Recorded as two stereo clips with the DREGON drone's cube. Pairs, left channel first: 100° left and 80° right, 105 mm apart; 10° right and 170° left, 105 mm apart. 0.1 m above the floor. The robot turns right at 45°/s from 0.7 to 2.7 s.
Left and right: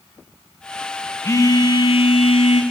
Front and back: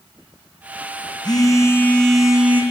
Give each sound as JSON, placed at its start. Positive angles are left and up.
{"t": 1.2, "sound": "a phone buzzing", "azimuth_deg": 35, "distance_m": 2.5}